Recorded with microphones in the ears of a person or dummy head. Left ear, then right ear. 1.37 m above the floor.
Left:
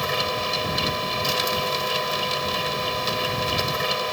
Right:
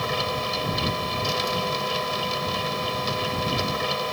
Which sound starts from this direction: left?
A machine running, at 0.0 s.